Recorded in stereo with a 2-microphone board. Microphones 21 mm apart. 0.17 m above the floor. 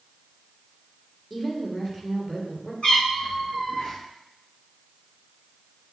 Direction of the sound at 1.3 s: 15° left (ahead or behind).